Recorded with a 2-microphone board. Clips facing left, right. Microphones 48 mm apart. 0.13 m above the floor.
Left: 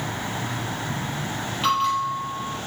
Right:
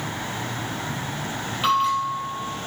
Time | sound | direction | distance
1.6 | a bell | 5° right (ahead or behind) | 3 m